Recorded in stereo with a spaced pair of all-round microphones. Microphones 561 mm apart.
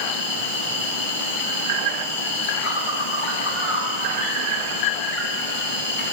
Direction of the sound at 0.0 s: 65° left (ahead or behind).